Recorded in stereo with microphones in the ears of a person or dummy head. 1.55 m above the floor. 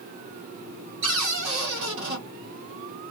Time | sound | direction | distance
1.0 | a cupboard door | 70° right (ahead or behind) | 1.8 m